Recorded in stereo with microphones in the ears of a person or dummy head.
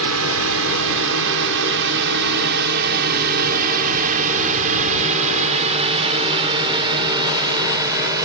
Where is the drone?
70° right (ahead or behind); by 8.3 s 10° right (ahead or behind).